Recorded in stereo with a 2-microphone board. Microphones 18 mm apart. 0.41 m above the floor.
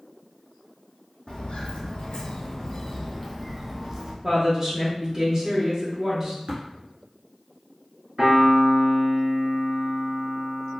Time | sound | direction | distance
1.3 | footsteps | 65° left (ahead or behind) | 0.9 m
4.2 | a woman speaking | 25° right (ahead or behind) | 0.8 m
6.5 | tapping | 65° right (ahead or behind) | 1.9 m
8.2 | a piano | 45° right (ahead or behind) | 1.4 m